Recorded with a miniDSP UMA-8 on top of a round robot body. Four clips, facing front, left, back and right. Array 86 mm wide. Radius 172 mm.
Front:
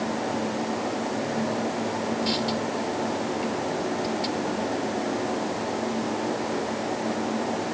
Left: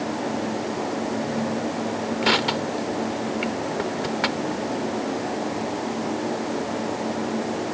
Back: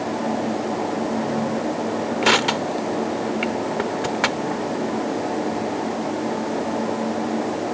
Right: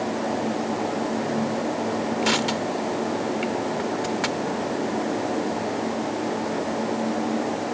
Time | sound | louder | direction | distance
2.2 | crushing | left 1 dB, back 7 dB | 170° left | ?